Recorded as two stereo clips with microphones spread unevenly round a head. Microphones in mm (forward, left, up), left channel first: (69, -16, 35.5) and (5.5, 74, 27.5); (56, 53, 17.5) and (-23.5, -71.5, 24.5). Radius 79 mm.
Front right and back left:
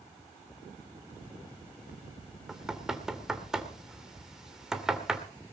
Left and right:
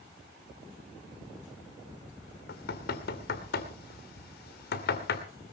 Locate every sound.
2.5 s knocking: 40° left, 2.5 m